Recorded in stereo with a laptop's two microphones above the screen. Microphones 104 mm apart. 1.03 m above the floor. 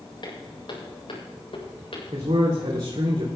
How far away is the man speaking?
About 2.5 m.